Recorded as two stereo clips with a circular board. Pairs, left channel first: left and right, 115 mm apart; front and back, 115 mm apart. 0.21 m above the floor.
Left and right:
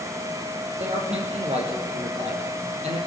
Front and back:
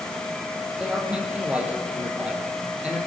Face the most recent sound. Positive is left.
turn(degrees=-100)